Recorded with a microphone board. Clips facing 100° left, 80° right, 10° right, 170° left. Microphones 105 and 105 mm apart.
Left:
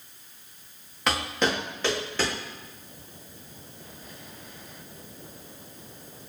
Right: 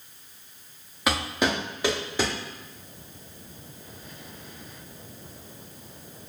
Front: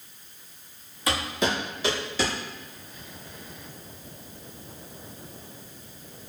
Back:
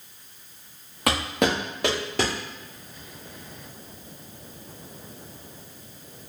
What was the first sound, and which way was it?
Footsteps, 165° right.